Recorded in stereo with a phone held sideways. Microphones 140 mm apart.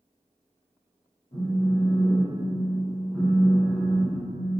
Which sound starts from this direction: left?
A phone buzzing, at 1.3 s.